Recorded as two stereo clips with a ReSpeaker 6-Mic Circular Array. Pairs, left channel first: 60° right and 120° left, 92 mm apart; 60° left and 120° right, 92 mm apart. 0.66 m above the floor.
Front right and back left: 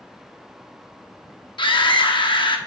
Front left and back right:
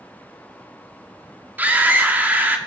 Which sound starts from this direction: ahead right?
A scream, at 1.6 s.